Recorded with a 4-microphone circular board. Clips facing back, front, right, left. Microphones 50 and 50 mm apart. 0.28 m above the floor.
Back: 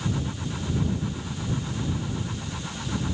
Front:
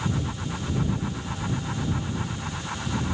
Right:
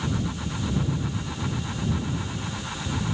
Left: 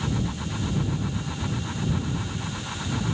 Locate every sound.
Only background noise.